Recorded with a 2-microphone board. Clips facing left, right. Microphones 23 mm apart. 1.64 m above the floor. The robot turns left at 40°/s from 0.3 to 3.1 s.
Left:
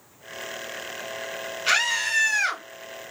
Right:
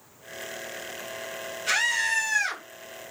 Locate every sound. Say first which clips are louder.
1.7 s a scream: left 2 dB; 135° left, 2 m; by 2.6 s 95° left, 2 m